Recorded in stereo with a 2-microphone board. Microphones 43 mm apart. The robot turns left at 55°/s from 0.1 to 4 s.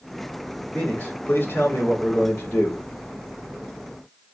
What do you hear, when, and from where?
0.7 s a man speaking: 150° left, 3 m; by 2.8 s 35° left, 3 m